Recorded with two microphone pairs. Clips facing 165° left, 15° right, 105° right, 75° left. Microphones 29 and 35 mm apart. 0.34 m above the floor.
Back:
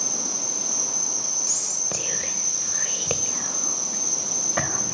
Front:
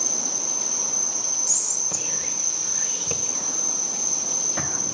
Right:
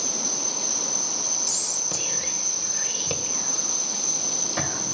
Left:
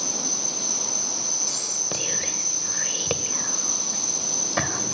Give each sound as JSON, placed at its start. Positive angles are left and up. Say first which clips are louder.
{"t": 0.0, "sound": "an insect", "louder": "even, even", "azimuth_deg": 155, "distance_m": 8.5}
{"t": 1.5, "sound": "whispering", "louder": "even, left 1 dB", "azimuth_deg": 125, "distance_m": 1.3}